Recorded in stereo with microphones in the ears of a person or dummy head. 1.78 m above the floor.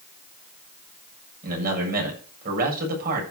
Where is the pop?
No pop in this recording.